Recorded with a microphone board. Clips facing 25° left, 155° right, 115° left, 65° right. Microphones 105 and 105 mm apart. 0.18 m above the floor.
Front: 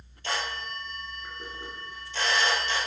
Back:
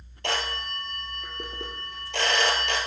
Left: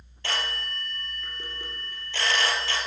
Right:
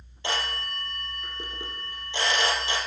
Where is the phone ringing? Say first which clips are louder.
Back 2 dB, right 2 dB; 140° right, 2.5 m.